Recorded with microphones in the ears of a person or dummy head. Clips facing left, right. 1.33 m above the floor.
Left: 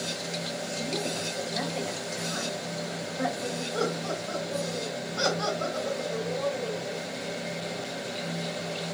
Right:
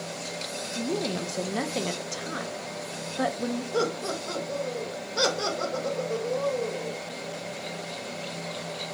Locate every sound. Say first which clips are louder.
0.8 s a woman speaking: right 6 dB; 65° right (ahead or behind), 0.7 m
3.7 s laughter: even; 85° right, 1.8 m